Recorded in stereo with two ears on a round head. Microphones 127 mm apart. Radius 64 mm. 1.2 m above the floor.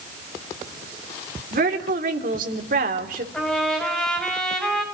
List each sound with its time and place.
1.5 s a woman speaking: 65° right (ahead or behind), 3.5 m
3.3 s a trumpet: 5° left (ahead or behind), 6.5 m